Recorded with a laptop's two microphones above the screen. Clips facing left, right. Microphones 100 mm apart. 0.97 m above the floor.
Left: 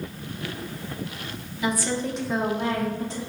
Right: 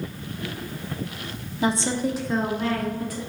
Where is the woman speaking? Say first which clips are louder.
Right 3 dB; 35° right (ahead or behind), 0.6 m; by 3.2 s 25° left (ahead or behind), 1.3 m.